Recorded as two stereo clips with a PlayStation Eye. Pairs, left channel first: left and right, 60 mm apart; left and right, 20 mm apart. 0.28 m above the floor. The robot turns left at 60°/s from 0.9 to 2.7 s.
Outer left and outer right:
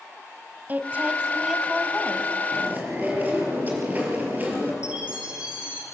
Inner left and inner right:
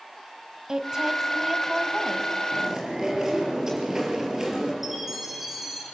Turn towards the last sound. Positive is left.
turn(degrees=-20)  # may be behind; listen again after turning